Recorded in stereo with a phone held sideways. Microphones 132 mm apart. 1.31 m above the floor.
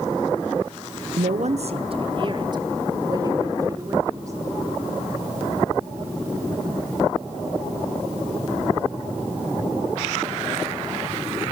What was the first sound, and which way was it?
A woman speaking, 60° right (ahead or behind).